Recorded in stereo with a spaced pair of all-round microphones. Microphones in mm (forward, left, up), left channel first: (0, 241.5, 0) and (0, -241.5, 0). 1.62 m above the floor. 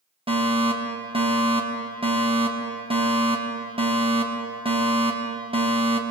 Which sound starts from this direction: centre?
A fire alarm, at 0.3 s.